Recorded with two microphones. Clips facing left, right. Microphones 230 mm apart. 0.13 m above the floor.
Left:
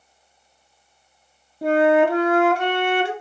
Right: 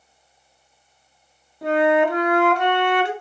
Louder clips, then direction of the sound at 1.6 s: Left 2 dB; 25° left (ahead or behind).